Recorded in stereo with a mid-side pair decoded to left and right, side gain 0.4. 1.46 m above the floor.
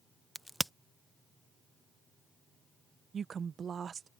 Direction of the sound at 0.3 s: Straight ahead.